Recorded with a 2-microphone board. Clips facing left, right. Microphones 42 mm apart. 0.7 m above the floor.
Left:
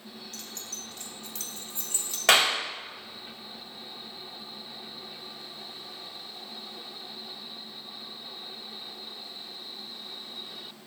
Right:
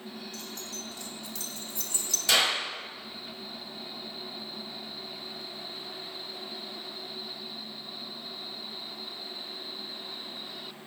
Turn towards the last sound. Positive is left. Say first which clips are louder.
# left 4 dB
turn(degrees=70)  # may be behind; listen again after turning